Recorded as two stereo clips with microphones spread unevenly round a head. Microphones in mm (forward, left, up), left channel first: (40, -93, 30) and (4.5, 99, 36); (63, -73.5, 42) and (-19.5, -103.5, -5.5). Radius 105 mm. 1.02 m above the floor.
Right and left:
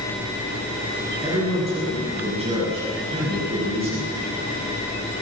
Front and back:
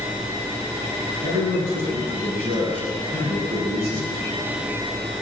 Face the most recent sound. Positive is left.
turn(degrees=165)